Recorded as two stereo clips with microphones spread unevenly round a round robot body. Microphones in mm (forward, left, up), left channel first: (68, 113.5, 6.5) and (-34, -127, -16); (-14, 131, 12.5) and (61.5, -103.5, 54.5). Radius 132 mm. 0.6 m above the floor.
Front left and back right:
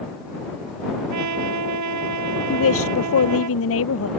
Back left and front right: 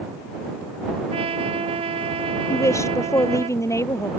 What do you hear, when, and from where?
1.1 s a trumpet: 140° right
2.5 s a woman speaking: 30° left